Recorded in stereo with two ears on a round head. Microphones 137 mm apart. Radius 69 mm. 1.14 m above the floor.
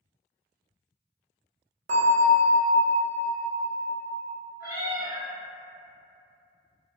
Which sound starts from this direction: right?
A bell, at 1.9 s.